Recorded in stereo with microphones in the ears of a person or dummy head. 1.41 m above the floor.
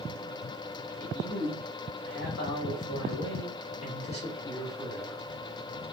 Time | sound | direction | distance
1.0 | a man speaking | 55° left (ahead or behind) | 1.6 m